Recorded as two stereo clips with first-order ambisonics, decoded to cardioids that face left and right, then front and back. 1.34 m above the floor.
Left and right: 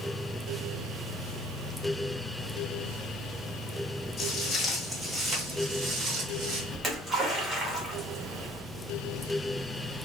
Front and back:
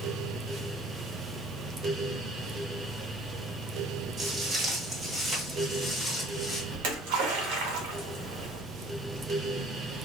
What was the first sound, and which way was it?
Footsteps, 140° left.